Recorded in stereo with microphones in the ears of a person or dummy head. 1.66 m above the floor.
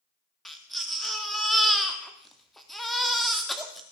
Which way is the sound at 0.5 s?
Centre (ahead or behind).